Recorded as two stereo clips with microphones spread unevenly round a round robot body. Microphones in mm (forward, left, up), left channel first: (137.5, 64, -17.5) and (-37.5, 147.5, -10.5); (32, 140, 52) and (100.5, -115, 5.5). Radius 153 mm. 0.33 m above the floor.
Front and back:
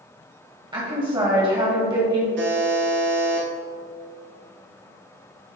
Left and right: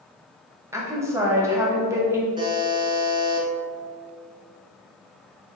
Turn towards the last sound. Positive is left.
turn(degrees=-150)